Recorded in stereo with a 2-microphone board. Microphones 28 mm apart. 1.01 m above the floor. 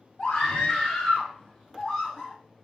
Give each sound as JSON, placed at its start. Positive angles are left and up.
{"t": 0.2, "sound": "a scream", "side_deg": 40, "distance_m": 6.0}